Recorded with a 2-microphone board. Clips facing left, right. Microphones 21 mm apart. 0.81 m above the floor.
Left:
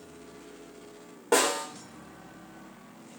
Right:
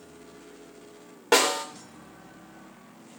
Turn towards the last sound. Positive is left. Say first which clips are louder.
# right 3 dB
turn(degrees=-75)  # may be behind; listen again after turning